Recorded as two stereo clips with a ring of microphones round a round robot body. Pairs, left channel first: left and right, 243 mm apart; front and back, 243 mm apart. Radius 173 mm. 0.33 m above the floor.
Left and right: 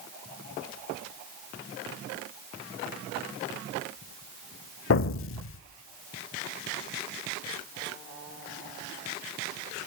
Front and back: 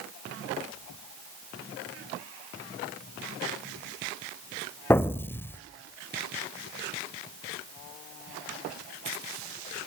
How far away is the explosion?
About 0.8 m.